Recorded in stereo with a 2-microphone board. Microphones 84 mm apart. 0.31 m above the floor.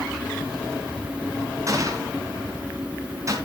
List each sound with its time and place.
1.7 s a gunshot: 40° right (ahead or behind), 3 m